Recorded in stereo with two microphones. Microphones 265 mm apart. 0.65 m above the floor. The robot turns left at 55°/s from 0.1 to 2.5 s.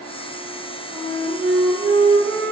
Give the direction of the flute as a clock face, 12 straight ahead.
11 o'clock.